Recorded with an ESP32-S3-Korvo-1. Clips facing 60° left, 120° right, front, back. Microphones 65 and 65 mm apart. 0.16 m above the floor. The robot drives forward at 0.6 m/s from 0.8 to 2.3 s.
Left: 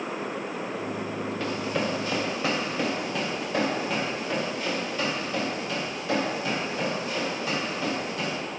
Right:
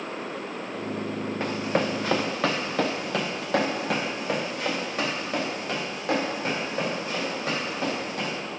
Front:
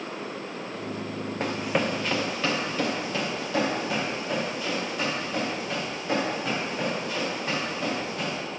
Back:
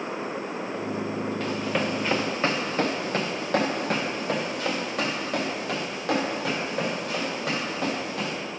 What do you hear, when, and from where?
1.4 s running footsteps: 55° right, 1.0 m; by 8.4 s 160° right, 5 m